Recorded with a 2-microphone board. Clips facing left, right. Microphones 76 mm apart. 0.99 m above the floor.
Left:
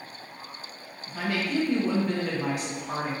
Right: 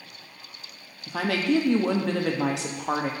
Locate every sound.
1.1 s a woman speaking: 80° right, 1.1 m